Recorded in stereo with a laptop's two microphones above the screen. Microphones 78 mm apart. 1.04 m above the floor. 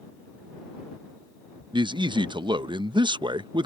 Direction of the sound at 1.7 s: 80° right.